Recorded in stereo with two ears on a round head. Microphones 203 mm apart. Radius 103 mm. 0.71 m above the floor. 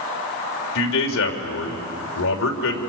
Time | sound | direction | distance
0.8 | a man speaking | 70° left (ahead or behind) | 3 m